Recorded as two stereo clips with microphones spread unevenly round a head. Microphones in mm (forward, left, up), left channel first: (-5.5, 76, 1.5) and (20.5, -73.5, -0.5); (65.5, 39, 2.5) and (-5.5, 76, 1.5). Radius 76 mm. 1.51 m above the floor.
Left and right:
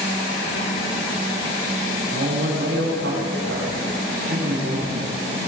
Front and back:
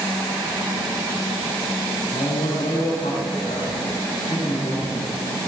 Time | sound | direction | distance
2.1 | a man speaking | 70° right | 8 m